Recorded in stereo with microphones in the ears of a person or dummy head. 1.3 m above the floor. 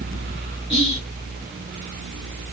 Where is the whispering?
35° right (ahead or behind), 1.3 m.